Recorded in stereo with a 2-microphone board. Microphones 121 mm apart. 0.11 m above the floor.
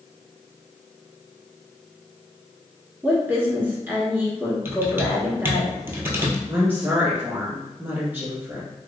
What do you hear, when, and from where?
3.0 s a woman speaking: 15° right (ahead or behind), 1.1 m
4.7 s typing on a keyboard: 20° right (ahead or behind), 0.7 m
6.5 s a woman speaking: 15° right (ahead or behind), 1.4 m